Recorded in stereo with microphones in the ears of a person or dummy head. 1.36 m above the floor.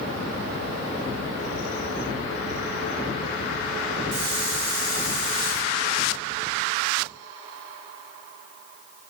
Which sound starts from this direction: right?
A hiss, at 4.1 s.